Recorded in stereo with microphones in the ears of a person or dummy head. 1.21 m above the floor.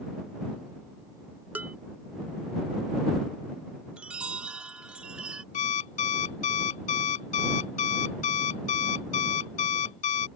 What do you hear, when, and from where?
1.6 s dishes clattering: 10° right (ahead or behind)
4.0 s a chime: 10° right (ahead or behind)
5.5 s an alarm clock: 40° left (ahead or behind)